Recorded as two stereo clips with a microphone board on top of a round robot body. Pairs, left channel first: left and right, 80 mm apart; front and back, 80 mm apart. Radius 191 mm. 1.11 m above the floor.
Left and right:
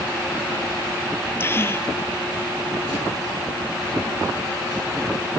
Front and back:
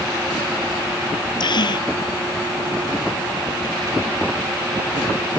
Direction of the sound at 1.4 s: 30° left.